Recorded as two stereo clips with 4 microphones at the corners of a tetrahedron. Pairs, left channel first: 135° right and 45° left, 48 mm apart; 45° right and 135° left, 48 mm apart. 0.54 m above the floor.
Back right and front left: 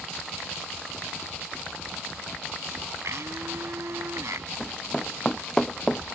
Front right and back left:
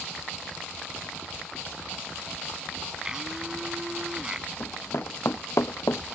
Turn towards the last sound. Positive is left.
turn(degrees=-50)